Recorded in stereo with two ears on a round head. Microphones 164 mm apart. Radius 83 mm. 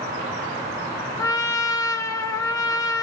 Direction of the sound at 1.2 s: 20° left (ahead or behind).